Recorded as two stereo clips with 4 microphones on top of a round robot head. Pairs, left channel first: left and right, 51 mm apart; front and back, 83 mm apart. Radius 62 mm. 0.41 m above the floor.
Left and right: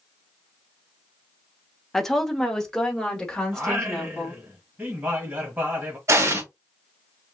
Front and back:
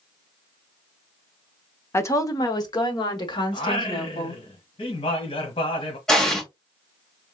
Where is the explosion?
85° right, 1.9 m.